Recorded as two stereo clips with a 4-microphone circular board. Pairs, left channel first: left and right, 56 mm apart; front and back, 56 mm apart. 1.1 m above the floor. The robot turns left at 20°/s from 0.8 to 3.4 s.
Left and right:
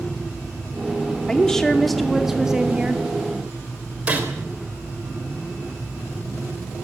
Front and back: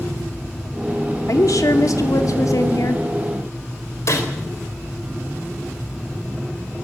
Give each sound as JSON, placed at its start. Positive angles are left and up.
{"t": 1.3, "sound": "a woman speaking", "azimuth_deg": 15, "distance_m": 2.5}
{"t": 4.1, "sound": "a gunshot", "azimuth_deg": -25, "distance_m": 3.5}